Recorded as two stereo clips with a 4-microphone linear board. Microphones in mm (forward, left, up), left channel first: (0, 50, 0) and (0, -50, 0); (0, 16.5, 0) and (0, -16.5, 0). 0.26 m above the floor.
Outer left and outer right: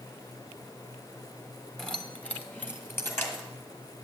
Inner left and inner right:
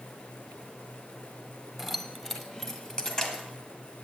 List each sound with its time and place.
1.8 s keys jangling: 5° left (ahead or behind), 1.3 m; by 3.5 s 25° left (ahead or behind), 2.5 m